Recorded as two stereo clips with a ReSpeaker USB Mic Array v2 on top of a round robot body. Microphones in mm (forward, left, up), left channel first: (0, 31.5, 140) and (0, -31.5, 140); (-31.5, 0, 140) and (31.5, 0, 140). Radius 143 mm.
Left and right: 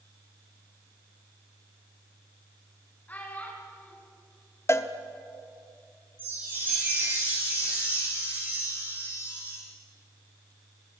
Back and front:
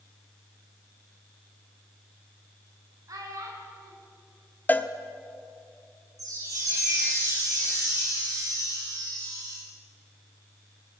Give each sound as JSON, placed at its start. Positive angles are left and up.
{"t": 3.1, "sound": "a child speaking", "azimuth_deg": 25, "distance_m": 5.0}
{"t": 4.7, "sound": "a cowbell", "azimuth_deg": 125, "distance_m": 1.1}
{"t": 6.2, "sound": "a chime", "azimuth_deg": -25, "distance_m": 9.0}